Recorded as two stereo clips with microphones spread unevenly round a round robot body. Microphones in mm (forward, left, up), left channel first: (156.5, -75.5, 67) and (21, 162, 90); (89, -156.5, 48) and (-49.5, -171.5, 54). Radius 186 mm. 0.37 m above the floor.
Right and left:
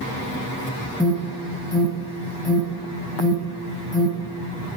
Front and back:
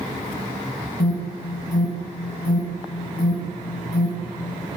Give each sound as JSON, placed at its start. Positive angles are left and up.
{"t": 1.0, "sound": "an alarm", "azimuth_deg": 15, "distance_m": 3.0}